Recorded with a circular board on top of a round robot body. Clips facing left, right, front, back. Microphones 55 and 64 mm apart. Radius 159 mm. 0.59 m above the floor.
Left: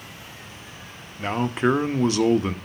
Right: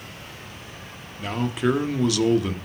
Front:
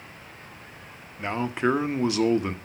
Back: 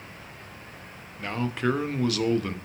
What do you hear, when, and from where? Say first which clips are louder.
1.2 s a man speaking: left 2 dB, front 2 dB; 60° left, 0.9 m